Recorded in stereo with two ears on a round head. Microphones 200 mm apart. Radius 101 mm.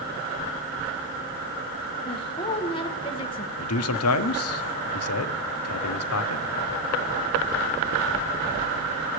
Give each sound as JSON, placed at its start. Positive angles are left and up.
{"t": 2.0, "sound": "a woman speaking", "side_deg": 25, "distance_m": 1.4}
{"t": 3.6, "sound": "a man speaking", "side_deg": 70, "distance_m": 0.7}